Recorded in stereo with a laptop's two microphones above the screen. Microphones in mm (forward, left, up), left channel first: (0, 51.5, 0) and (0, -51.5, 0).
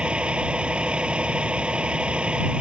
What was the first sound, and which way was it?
A vehicle, 10° right (ahead or behind).